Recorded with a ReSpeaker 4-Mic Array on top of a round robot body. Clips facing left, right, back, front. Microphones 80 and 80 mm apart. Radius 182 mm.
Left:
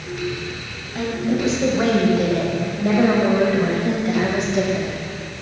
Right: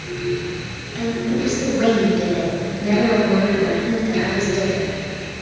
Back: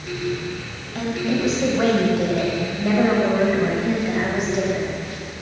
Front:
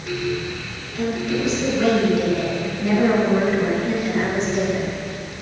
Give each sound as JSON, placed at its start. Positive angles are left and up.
{"t": 0.9, "sound": "a woman speaking", "azimuth_deg": 150, "distance_m": 3.5}